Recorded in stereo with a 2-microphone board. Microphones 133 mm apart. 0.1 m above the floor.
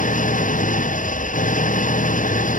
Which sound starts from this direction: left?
An engine running, at 0.0 s.